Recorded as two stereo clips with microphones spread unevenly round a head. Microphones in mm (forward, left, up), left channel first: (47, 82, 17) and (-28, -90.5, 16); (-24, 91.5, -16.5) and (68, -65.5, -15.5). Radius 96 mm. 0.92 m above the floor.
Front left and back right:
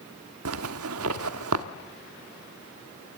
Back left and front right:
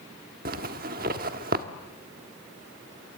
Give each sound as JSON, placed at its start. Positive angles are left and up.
{"t": 0.5, "sound": "a zipper", "azimuth_deg": -110, "distance_m": 1.3}